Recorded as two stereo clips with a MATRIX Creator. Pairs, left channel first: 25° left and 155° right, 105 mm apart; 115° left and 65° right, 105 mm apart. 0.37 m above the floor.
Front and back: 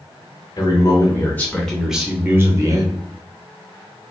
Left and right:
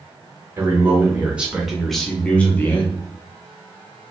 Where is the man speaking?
10° right, 1.0 m; by 2.9 s 175° left, 1.0 m.